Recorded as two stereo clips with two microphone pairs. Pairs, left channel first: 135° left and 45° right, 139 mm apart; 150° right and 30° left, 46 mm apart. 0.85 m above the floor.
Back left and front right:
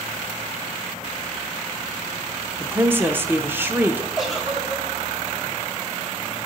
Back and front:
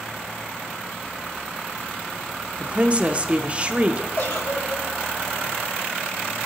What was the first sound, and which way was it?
A woman speaking, 15° left.